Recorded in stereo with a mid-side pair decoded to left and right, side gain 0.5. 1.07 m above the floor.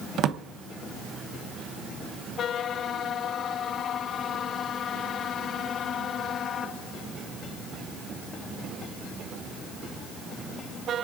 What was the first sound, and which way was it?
A drawer, 65° right.